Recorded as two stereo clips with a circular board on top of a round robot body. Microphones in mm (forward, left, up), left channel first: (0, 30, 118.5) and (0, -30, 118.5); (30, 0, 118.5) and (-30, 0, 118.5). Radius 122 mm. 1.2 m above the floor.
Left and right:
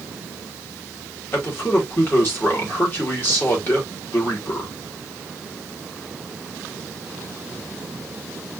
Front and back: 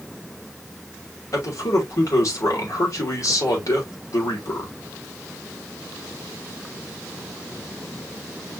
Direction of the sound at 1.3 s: 35° left.